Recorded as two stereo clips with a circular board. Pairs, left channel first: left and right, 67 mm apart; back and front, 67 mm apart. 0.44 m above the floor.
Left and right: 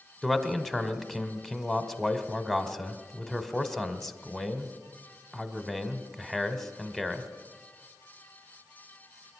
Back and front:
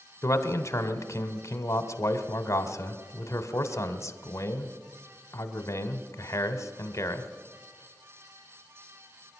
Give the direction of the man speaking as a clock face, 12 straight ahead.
6 o'clock.